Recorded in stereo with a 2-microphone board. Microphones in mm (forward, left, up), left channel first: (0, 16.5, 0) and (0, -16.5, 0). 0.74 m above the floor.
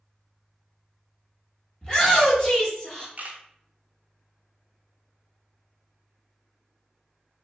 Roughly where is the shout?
Left.